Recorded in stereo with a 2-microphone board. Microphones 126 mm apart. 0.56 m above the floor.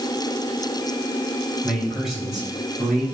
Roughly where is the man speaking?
Centre.